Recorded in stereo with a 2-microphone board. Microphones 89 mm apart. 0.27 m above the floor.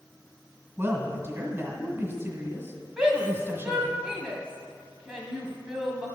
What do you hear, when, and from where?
0.8 s a woman speaking: 25° right (ahead or behind), 2.0 m
3.0 s a shout: 10° right (ahead or behind), 1.9 m